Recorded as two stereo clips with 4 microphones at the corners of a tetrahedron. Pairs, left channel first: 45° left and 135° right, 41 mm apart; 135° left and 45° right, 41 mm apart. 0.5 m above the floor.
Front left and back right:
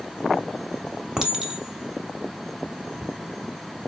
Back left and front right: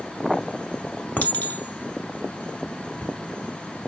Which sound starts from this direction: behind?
A clink, at 1.2 s.